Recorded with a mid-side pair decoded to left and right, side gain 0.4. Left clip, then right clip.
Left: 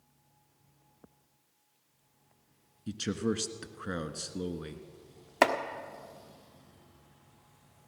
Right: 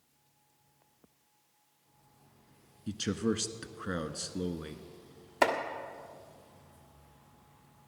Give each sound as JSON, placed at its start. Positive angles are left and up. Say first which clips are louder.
{"t": 2.9, "sound": "a man speaking", "louder": "even", "azimuth_deg": 10, "distance_m": 1.4}
{"t": 5.4, "sound": "chopping", "louder": "left 2 dB", "azimuth_deg": 50, "distance_m": 1.3}